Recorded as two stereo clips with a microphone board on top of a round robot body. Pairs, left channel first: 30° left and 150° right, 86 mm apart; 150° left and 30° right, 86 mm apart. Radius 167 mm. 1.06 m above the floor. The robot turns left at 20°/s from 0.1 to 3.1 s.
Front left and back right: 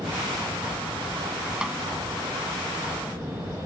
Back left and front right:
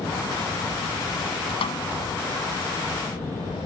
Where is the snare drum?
130° left; by 1.8 s 125° left.